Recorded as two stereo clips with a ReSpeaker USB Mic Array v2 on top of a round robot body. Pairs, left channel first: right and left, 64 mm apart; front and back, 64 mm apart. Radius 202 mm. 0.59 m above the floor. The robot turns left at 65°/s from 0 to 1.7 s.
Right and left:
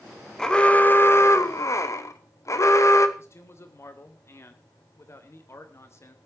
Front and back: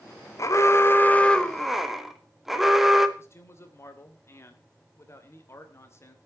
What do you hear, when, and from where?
0.4 s an alarm: 10° right, 2.0 m; by 3.1 s 95° right, 2.0 m
3.2 s a man speaking: 45° right, 3 m